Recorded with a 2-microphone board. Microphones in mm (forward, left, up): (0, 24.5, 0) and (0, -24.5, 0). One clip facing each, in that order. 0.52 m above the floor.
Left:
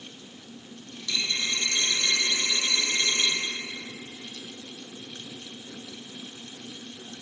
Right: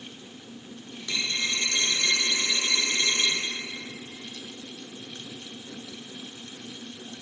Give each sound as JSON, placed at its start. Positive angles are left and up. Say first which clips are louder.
{"t": 1.0, "sound": "a dropped coin", "louder": "even", "side_deg": -25, "distance_m": 2.0}